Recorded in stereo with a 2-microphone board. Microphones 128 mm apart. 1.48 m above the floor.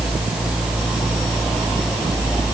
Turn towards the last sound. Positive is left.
No sound to turn to.